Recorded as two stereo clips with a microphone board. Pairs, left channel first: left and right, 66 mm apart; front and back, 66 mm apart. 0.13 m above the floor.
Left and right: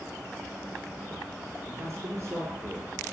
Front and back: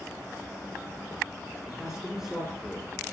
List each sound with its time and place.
1.7 s a man speaking: 100° right, 3 m